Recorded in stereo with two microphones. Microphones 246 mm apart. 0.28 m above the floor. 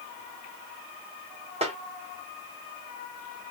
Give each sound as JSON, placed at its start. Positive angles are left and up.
{"t": 1.6, "sound": "a snare drum", "side_deg": -25, "distance_m": 1.4}